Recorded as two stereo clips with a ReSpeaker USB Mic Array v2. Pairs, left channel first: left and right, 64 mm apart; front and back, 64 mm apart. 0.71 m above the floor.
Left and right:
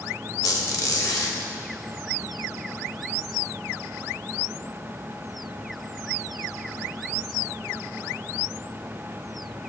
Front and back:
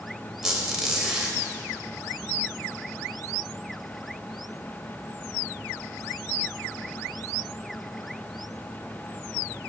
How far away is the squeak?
About 0.9 m.